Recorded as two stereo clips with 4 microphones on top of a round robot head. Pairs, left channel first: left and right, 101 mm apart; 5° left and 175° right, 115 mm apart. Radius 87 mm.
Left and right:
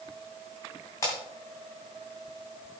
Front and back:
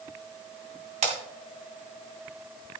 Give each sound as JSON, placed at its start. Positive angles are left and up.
{"t": 1.0, "sound": "breaking glass", "azimuth_deg": 160, "distance_m": 2.5}